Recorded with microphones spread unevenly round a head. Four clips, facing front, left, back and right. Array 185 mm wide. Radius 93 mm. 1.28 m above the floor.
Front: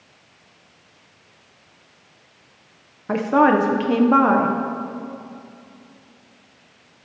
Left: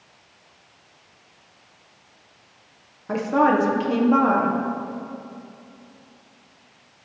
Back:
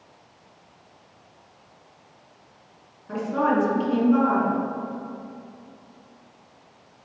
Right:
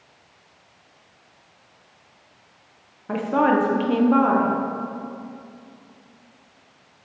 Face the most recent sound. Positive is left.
turn(degrees=-5)